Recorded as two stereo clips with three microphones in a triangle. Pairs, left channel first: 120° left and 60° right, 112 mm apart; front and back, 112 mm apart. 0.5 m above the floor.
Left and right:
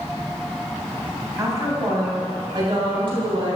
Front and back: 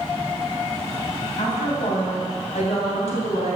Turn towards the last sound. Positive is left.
turn(degrees=-20)